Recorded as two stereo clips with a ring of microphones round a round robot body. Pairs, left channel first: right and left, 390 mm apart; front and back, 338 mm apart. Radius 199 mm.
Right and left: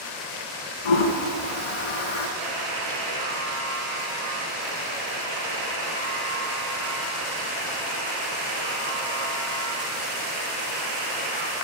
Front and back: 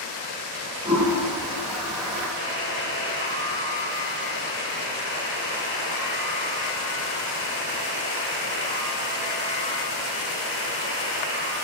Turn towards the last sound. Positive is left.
turn(degrees=55)